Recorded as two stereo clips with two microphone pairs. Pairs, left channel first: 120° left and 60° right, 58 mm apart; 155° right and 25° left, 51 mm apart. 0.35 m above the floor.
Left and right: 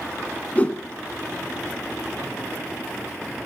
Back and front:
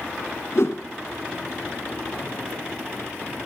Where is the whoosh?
Straight behind, 1.6 m.